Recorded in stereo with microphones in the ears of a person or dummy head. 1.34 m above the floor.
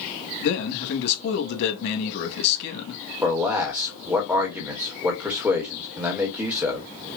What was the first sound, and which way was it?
A man speaking, 60° left (ahead or behind).